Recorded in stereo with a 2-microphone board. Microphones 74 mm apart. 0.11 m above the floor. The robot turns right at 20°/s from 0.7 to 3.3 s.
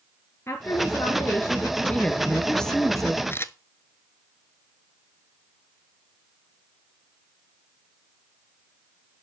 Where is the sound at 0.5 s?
40° left (ahead or behind), 1.9 m; by 1.8 s 35° left (ahead or behind), 1.9 m.